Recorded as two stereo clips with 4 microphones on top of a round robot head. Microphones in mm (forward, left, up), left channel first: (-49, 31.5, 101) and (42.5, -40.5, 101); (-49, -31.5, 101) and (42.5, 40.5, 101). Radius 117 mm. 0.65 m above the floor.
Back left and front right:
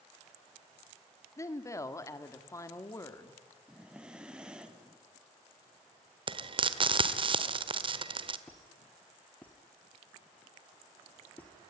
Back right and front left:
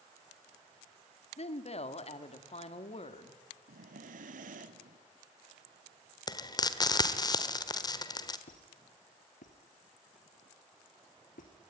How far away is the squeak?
About 2.5 m.